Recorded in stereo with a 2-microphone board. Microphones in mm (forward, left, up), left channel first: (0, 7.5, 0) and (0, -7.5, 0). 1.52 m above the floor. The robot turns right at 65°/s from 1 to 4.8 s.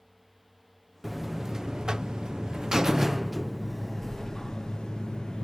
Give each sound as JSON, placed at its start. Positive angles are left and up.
{"t": 1.0, "sound": "a buzzer", "azimuth_deg": -170}